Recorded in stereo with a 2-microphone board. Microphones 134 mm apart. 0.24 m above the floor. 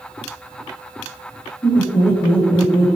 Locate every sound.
1.6 s laughter: 35° left (ahead or behind), 4.5 m; by 2.9 s 40° left (ahead or behind), 4 m